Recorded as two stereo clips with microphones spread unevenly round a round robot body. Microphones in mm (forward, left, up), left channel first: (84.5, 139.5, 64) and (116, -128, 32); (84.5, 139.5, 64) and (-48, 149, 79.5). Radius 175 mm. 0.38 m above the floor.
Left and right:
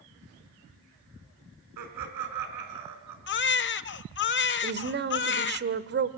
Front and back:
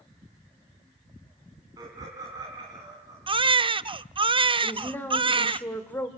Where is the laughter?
110° right, 3.5 m.